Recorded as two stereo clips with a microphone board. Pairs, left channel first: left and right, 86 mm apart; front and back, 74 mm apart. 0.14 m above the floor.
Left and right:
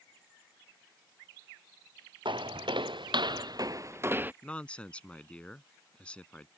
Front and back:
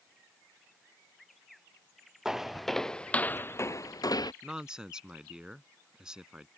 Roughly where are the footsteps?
Right.